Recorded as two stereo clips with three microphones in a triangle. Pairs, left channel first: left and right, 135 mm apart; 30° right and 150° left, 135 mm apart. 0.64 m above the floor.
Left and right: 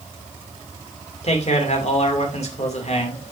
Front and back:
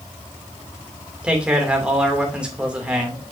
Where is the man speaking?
70° left, 2.5 m.